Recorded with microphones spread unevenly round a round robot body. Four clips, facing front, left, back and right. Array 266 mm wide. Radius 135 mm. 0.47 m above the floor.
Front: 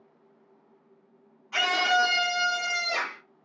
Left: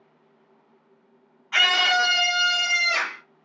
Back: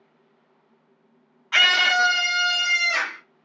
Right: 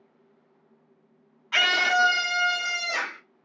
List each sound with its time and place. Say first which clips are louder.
1.5 s a scream: left 1 dB, back 3 dB; 75° right, 0.7 m; by 3.2 s 25° right, 1.6 m